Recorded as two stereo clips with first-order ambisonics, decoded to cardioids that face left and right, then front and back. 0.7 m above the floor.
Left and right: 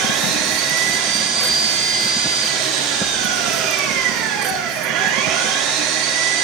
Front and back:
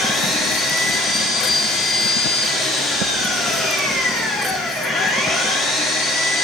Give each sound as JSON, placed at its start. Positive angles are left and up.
{"t": 0.0, "sound": "an engine running", "azimuth_deg": -80, "distance_m": 7.5}